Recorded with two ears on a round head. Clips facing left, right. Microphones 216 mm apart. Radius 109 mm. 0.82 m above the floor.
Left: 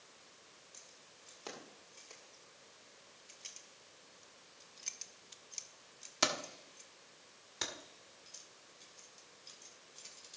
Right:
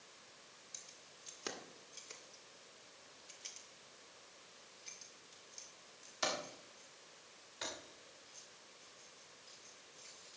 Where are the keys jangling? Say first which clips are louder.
Even; 30° right (ahead or behind), 2 m; by 10.4 s 60° left (ahead or behind), 3.5 m.